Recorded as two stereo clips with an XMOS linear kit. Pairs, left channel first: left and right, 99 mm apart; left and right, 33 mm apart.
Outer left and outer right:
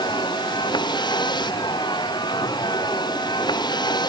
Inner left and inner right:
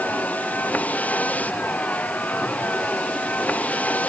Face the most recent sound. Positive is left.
turn(degrees=45)  # may be behind; listen again after turning